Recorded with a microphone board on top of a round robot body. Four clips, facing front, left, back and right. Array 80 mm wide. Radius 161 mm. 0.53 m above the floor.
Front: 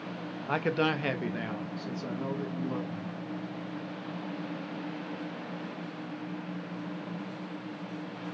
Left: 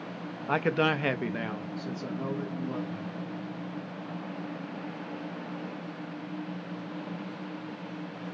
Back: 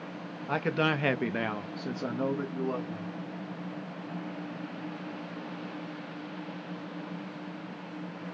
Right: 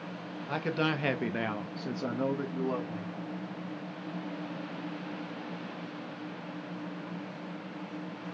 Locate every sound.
0.5 s a man speaking: 80° left, 0.9 m; by 3.1 s 140° right, 2 m